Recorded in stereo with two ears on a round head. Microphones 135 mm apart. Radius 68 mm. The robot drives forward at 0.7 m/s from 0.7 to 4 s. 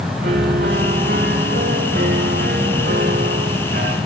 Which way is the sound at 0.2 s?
80° right.